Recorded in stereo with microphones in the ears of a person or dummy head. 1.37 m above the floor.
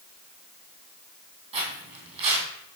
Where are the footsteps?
35° right (ahead or behind), 2 m.